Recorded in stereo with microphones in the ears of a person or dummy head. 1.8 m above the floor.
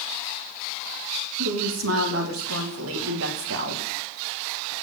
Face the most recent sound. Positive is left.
turn(degrees=-65)  # may be behind; listen again after turning